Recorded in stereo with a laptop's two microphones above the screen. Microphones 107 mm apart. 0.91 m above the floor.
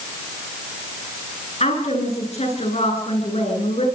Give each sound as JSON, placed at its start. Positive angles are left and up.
{"t": 1.6, "sound": "a woman speaking", "side_deg": 80, "distance_m": 10.0}